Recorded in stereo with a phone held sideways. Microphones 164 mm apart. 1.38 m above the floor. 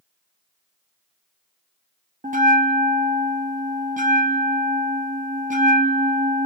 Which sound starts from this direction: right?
A bell, at 2.2 s.